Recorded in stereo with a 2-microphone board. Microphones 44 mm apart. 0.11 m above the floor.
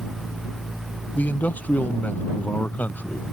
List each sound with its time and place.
1.1 s a man speaking: 35° left (ahead or behind)